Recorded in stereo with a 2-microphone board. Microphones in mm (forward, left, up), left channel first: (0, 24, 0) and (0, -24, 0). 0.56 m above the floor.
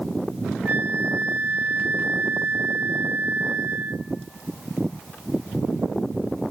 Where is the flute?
45° right (ahead or behind), 0.6 m.